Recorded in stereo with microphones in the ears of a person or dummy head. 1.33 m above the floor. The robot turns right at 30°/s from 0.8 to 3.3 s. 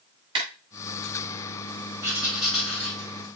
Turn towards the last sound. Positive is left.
turn(degrees=25)  # may be behind; listen again after turning